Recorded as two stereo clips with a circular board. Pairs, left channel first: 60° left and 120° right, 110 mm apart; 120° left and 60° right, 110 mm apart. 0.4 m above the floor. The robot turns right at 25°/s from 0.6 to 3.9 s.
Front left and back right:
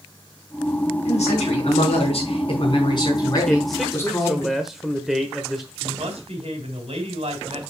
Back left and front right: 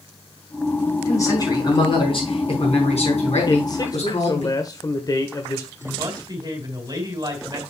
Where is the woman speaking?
110° right, 3 m.